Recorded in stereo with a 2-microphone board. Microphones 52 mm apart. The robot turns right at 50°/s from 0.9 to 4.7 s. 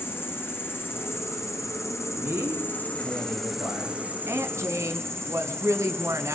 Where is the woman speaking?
55° right (ahead or behind), 2.5 m; by 6.3 s 65° right (ahead or behind), 2.5 m.